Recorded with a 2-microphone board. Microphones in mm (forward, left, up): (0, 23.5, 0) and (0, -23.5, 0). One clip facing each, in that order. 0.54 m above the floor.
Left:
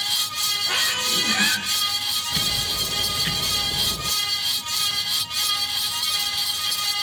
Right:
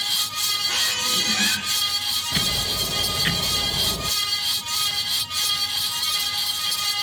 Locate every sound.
0.7 s a squeak: 20° left (ahead or behind), 3 m
2.3 s ticking: 25° right (ahead or behind), 0.6 m